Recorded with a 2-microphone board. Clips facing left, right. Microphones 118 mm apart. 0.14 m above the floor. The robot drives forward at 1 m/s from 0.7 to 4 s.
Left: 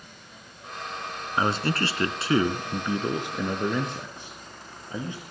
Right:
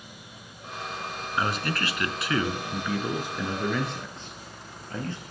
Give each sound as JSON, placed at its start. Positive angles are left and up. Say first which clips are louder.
{"t": 1.4, "sound": "a man speaking", "louder": "left 3 dB", "side_deg": 25, "distance_m": 1.3}